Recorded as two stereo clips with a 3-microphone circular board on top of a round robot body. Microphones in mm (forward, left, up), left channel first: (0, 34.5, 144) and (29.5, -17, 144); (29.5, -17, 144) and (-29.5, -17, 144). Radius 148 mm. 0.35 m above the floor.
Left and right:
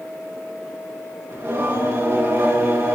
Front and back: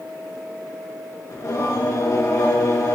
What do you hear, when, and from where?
1.3 s singing: 25° right, 3 m